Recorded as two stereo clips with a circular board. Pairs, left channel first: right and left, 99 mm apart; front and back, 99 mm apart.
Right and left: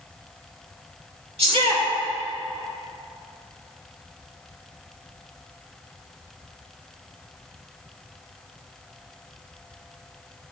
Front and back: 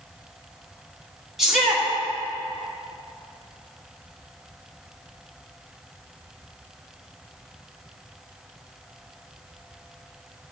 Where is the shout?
95° left, 2.5 m.